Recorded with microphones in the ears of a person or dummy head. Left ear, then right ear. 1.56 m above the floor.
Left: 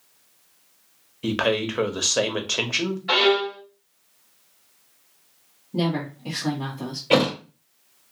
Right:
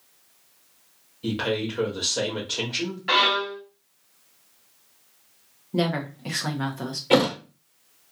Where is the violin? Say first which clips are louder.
Left 1 dB; 40° right (ahead or behind), 1.2 m.